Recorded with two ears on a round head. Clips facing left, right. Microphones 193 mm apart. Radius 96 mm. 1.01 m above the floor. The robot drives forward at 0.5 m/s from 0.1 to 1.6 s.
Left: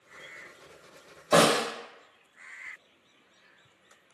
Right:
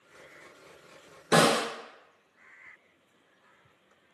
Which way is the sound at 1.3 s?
80° right.